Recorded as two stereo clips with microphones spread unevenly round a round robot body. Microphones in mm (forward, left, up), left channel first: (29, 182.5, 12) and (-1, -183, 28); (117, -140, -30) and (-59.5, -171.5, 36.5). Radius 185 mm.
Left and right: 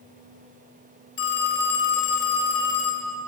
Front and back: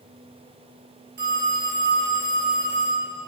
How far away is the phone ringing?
About 2.5 m.